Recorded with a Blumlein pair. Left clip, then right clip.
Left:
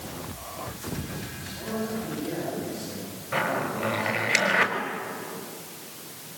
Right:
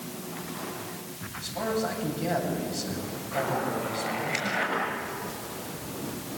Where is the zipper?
30° left, 5.5 m.